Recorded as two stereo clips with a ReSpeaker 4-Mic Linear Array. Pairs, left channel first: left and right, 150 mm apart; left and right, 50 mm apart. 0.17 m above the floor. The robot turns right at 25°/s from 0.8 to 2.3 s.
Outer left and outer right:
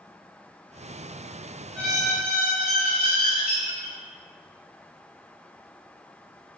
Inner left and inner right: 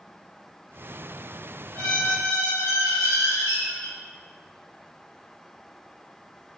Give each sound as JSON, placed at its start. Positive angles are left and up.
{"t": 1.8, "sound": "a squeak", "side_deg": 50, "distance_m": 1.4}